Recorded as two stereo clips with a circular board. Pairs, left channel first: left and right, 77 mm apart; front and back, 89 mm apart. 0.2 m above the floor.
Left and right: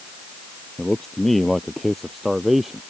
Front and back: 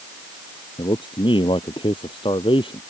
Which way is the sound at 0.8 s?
5° left.